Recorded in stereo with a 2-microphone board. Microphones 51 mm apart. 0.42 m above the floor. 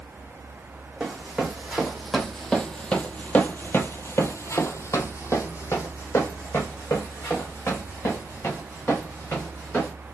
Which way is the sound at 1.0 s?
15° right (ahead or behind).